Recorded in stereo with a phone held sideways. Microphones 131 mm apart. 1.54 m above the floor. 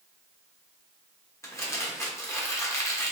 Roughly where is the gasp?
No gasp in this recording.